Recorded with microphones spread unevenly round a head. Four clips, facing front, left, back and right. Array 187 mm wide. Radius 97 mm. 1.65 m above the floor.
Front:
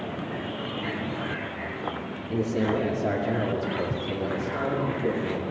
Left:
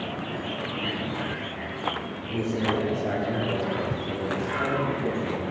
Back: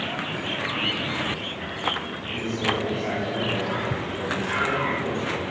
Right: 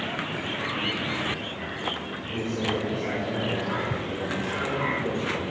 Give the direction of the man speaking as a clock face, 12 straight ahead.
11 o'clock.